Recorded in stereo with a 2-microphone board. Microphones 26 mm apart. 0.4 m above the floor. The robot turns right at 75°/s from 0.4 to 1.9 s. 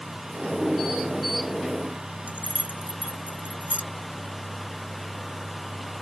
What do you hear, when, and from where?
2.3 s keys jangling: 80° right